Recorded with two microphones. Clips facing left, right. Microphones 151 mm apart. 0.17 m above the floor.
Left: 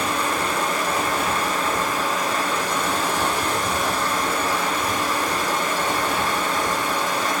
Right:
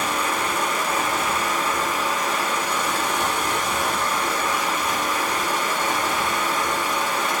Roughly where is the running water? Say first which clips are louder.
Left 1 dB; left.